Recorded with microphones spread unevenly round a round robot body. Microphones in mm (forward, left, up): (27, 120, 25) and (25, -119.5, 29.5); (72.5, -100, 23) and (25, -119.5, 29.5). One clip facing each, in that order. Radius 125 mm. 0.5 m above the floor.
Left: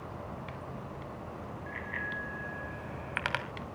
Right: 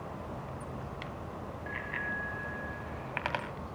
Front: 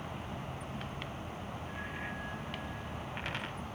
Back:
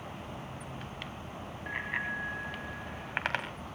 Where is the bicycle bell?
165° right, 3 m; by 3.5 s 150° left, 2 m.